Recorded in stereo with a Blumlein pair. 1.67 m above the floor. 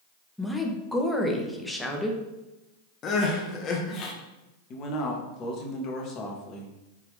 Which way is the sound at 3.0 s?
30° left.